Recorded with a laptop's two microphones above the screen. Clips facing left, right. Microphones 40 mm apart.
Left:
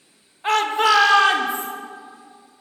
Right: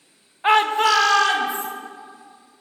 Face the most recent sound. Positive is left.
turn(degrees=30)  # may be behind; listen again after turning